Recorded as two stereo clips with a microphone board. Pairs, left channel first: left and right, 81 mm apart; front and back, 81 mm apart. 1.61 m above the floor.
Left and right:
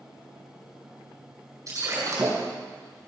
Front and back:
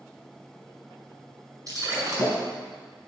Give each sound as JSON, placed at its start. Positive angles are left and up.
{"t": 1.7, "sound": "breaking glass", "azimuth_deg": -135, "distance_m": 5.0}